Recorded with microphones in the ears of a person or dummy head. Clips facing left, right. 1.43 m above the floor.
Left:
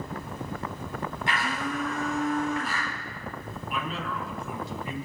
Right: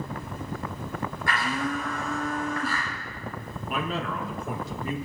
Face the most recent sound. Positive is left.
turn(degrees=-45)  # may be behind; listen again after turning